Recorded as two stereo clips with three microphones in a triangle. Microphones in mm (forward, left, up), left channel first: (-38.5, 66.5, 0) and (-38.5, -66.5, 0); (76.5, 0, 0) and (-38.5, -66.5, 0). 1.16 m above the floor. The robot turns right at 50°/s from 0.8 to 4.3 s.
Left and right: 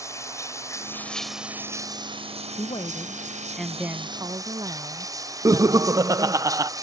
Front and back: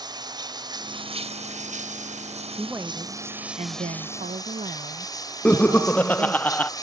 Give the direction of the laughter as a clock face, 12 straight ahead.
1 o'clock.